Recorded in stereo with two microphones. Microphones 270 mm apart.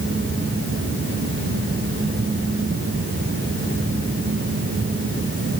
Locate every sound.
Only background noise.